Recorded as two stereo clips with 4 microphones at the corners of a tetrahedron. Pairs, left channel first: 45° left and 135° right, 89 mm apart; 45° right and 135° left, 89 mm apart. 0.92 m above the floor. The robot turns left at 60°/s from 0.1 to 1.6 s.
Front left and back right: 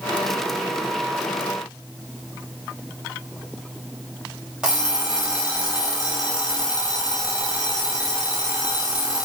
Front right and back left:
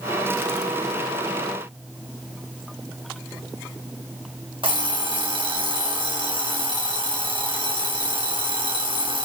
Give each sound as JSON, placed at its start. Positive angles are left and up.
{"t": 4.6, "sound": "an alarm clock", "azimuth_deg": 145, "distance_m": 2.0}